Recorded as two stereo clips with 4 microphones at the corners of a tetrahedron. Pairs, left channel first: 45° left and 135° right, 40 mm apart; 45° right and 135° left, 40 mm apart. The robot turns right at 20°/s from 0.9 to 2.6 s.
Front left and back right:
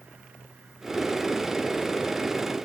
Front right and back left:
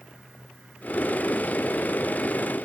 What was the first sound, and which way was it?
Only background noise.